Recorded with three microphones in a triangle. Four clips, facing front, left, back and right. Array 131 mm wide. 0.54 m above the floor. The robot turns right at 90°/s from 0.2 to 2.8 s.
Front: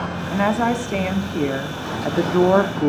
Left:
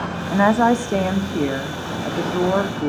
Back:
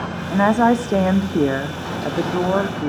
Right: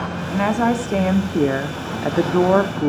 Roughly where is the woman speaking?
Behind left.